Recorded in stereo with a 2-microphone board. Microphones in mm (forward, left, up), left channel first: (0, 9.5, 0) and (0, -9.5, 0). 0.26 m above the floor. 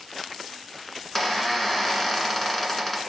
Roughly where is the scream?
No scream in this recording.